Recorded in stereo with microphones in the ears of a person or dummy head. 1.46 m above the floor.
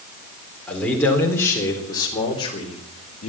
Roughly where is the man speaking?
Centre.